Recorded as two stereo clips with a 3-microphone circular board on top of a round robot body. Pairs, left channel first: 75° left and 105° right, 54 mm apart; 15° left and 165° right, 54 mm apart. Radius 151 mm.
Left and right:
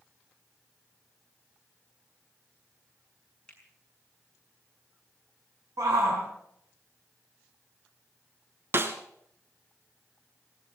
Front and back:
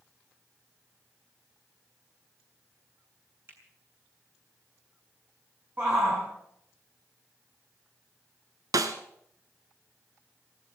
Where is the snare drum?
155° right, 1.0 m.